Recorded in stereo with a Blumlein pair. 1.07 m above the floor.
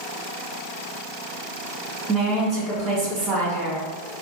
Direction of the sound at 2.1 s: 20° right.